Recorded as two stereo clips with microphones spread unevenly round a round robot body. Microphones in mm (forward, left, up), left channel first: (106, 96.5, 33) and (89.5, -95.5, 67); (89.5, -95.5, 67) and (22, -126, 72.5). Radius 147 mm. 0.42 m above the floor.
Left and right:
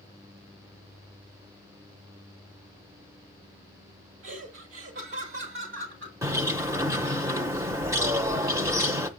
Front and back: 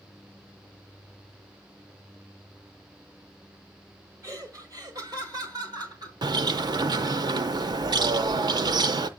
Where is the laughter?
110° right, 1.8 m; by 6.1 s 135° right, 3 m.